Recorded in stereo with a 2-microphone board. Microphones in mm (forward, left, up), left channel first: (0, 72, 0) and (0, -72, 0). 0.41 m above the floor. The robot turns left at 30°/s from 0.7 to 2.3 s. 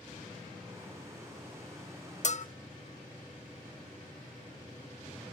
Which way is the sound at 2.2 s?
55° left (ahead or behind).